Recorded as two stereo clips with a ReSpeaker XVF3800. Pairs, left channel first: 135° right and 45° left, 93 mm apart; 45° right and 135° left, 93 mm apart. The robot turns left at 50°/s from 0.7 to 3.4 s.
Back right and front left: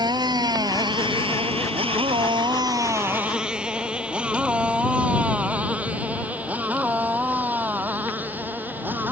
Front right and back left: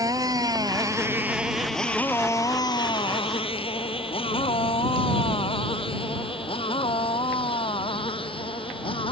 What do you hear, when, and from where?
0.0 s a motorcycle: 85° left; by 9.1 s 25° right